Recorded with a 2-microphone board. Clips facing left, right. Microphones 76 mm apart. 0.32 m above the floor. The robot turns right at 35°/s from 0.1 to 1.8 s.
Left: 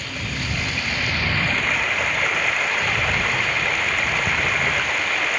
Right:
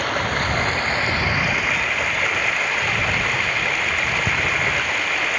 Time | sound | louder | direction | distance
0.0 | running water | right 8 dB | 60° right | ?